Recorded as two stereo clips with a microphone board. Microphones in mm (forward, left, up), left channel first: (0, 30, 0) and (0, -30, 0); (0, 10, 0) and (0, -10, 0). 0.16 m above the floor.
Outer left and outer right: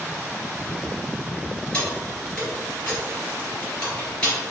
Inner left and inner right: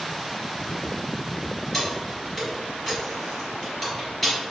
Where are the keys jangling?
25° left (ahead or behind), 1.7 m.